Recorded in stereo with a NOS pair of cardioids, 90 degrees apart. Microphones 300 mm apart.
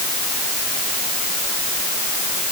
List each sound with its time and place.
Only background noise.